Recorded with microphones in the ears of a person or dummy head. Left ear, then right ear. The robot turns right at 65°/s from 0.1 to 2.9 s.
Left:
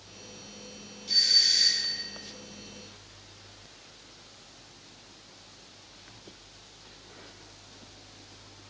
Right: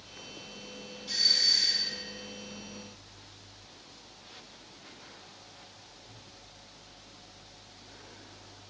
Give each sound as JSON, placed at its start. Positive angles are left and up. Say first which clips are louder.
{"t": 1.1, "sound": "a doorbell", "louder": "left 3 dB", "azimuth_deg": 0, "distance_m": 0.9}